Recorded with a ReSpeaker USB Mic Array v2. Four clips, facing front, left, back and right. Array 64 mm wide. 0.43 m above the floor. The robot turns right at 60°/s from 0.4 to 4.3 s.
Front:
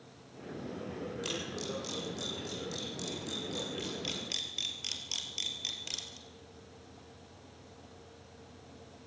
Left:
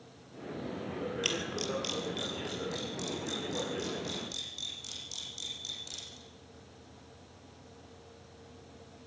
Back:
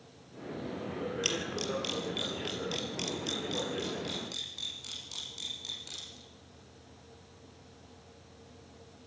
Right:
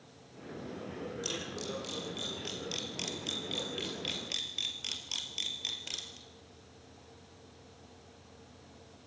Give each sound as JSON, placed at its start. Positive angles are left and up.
{"t": 1.2, "sound": "a camera shutter", "azimuth_deg": 115, "distance_m": 4.0}